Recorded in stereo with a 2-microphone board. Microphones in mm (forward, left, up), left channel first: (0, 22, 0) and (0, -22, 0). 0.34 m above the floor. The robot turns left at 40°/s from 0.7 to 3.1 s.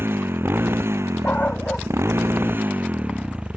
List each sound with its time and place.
0.0 s a motorcycle: 55° right; by 3.6 s 150° right
1.2 s a dog barking: 40° left (ahead or behind); by 3.5 s 35° right (ahead or behind)